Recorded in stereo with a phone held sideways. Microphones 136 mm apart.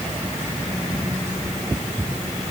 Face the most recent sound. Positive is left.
No sound to turn to.